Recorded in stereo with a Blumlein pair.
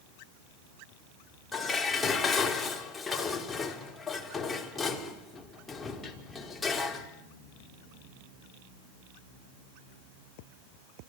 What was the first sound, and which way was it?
Dishes clattering, 10° left.